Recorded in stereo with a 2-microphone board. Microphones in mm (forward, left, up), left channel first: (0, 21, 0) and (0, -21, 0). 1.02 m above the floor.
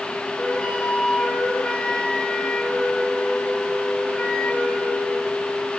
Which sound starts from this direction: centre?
A flute, at 0.4 s.